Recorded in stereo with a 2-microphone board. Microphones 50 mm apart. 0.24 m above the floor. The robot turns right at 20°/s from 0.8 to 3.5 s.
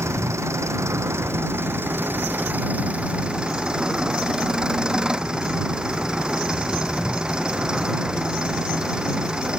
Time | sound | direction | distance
0.0 | an engine running | 70° right | ?